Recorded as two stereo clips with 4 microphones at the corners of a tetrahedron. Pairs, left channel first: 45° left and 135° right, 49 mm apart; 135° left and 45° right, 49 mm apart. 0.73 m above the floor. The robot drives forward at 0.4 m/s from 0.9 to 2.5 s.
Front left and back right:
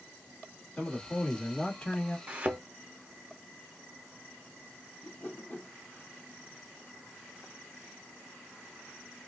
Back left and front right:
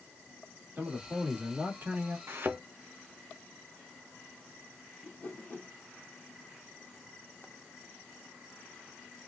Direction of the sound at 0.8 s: 20° right.